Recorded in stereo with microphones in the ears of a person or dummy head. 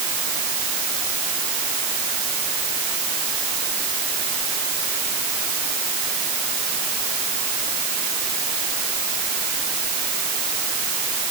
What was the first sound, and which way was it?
Only background noise.